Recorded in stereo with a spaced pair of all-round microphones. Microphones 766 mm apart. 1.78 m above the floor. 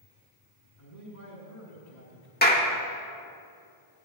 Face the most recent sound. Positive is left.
turn(degrees=10)  # may be behind; listen again after turning